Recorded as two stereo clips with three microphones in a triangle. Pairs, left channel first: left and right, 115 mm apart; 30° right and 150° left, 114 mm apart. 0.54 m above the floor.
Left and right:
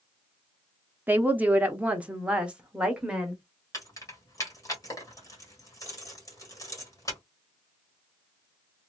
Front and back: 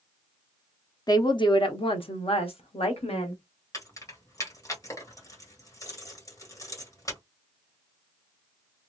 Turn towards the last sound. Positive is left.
turn(degrees=30)